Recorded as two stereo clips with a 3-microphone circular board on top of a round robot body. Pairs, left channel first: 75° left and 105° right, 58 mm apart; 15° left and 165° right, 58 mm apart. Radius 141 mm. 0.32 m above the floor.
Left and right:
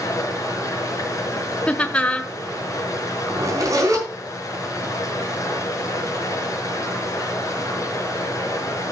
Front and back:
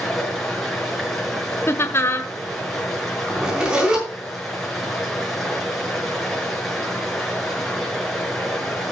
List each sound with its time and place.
0.0 s running water: 100° left, 4 m
1.7 s laughter: 15° left, 1.2 m
3.3 s a zipper: 90° right, 4.5 m